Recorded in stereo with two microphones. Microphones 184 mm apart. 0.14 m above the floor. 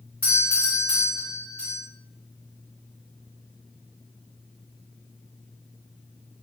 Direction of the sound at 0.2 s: 10° left (ahead or behind).